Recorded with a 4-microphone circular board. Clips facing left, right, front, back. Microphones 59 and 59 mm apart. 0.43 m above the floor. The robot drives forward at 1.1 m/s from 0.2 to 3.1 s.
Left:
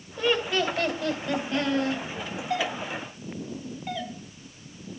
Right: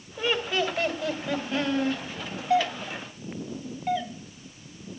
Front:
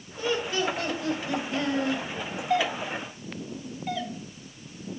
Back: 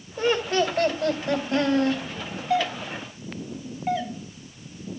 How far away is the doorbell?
About 1.1 m.